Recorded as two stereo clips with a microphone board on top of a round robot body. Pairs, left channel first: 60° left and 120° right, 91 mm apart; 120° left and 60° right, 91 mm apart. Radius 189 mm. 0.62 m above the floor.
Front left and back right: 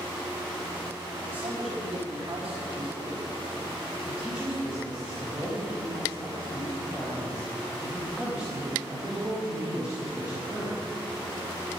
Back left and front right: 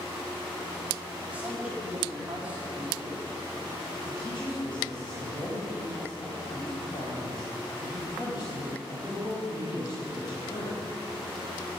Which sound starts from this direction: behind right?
A man speaking, at 1.3 s.